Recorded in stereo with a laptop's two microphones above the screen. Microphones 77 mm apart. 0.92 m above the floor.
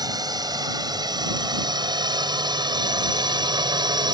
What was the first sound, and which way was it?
A drone, 60° right (ahead or behind).